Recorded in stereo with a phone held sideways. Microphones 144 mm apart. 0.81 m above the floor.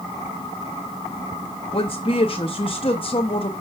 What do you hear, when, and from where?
1.7 s a woman speaking: 40° left (ahead or behind), 0.7 m